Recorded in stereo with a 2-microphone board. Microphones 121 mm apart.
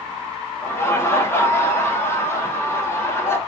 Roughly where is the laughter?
Left.